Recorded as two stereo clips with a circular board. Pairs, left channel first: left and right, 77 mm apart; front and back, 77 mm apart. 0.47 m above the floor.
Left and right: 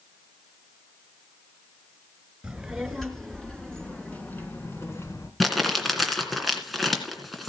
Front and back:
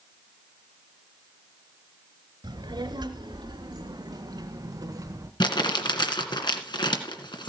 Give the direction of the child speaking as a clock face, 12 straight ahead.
6 o'clock.